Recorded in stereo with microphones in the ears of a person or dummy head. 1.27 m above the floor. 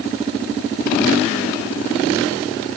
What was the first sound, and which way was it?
Only background noise.